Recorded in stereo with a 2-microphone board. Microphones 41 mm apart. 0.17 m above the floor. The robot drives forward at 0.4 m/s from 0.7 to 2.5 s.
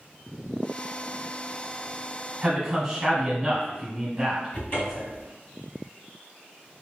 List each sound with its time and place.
2.4 s a man speaking: 15° right (ahead or behind), 1.1 m
4.5 s a cupboard door: 40° left (ahead or behind), 1.9 m